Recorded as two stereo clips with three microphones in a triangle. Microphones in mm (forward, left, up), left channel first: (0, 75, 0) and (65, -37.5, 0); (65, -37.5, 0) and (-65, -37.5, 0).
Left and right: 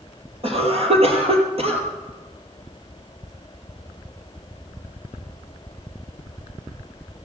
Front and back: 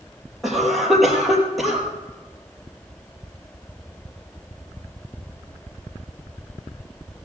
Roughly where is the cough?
Right.